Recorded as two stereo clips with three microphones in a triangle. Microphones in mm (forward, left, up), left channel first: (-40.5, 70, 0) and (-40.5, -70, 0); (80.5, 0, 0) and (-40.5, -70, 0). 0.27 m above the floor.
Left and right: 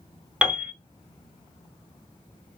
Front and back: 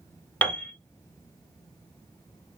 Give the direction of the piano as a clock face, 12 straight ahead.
1 o'clock.